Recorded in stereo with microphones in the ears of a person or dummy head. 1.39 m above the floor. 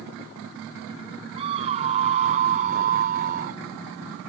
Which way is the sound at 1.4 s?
35° right (ahead or behind).